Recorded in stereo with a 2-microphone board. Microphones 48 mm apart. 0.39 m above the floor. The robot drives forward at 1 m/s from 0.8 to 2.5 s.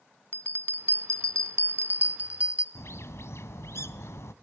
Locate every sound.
0.3 s a bell: 50° right (ahead or behind), 0.8 m; by 2.6 s 25° right (ahead or behind), 1.3 m
2.8 s a bird: 70° left (ahead or behind), 0.9 m